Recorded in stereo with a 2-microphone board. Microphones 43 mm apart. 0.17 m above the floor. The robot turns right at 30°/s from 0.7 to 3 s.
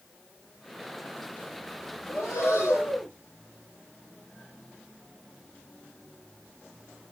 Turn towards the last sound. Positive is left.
turn(degrees=55)  # may be behind; listen again after turning